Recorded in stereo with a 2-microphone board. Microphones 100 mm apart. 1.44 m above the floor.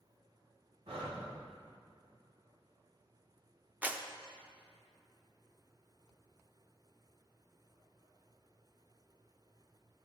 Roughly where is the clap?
Centre.